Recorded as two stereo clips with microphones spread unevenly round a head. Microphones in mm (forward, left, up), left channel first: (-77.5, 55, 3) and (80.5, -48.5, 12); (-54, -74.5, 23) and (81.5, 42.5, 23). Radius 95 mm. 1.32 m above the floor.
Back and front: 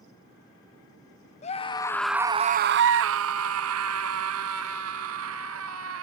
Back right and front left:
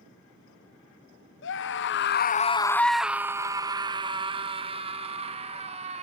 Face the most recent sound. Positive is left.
turn(degrees=-15)